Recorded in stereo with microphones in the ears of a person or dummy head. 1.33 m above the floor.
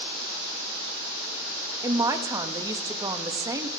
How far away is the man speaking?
About 0.5 m.